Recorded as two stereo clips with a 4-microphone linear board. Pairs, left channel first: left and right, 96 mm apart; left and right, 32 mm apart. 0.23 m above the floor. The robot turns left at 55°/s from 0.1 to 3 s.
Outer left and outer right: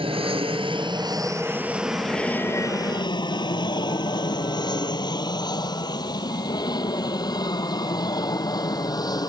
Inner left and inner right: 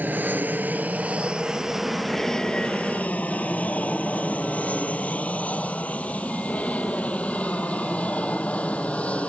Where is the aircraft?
70° right (ahead or behind); by 9.3 s 40° left (ahead or behind).